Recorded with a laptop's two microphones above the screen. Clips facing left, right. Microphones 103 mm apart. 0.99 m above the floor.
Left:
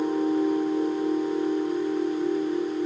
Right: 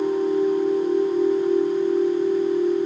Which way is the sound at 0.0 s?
35° left (ahead or behind).